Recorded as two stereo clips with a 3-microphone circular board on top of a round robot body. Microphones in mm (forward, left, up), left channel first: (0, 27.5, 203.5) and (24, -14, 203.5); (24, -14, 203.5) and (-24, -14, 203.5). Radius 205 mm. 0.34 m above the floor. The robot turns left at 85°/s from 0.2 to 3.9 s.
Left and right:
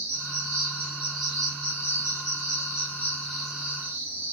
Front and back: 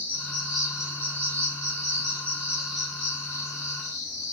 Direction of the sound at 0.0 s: 55° right.